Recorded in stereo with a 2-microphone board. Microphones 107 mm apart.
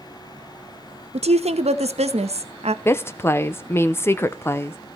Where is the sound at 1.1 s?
85° right, 0.9 m.